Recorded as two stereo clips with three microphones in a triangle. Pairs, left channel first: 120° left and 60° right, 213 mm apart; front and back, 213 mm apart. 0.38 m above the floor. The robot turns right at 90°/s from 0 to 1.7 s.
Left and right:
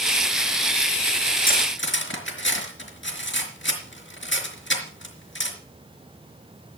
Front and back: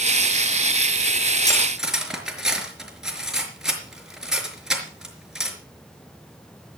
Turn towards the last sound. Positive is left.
turn(degrees=95)